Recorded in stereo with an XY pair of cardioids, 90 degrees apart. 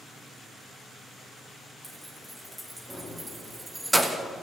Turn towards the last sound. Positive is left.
turn(degrees=-15)